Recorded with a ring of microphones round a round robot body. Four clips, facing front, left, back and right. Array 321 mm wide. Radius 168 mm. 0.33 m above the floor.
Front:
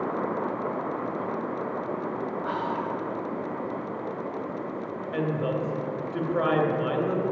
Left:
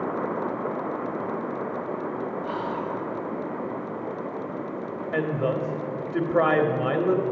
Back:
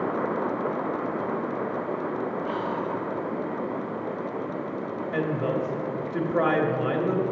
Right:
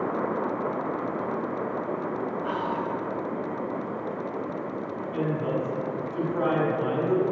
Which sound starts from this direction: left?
A woman speaking, at 5.1 s.